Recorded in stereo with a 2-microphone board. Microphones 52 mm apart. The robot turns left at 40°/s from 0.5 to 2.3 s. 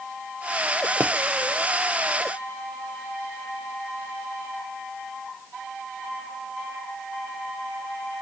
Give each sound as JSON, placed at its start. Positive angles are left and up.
{"t": 1.0, "sound": "a pop", "side_deg": -35, "distance_m": 0.5}